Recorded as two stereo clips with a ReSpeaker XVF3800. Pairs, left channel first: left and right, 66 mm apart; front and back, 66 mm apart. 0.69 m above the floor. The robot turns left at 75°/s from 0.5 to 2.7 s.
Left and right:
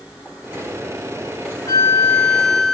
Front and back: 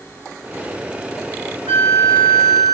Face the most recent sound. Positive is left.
turn(degrees=-25)